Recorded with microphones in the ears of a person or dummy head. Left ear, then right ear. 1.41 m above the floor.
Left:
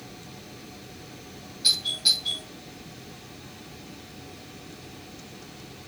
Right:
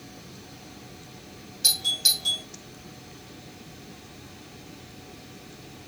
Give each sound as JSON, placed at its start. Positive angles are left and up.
{"t": 1.6, "sound": "a doorbell", "side_deg": -65, "distance_m": 3.0}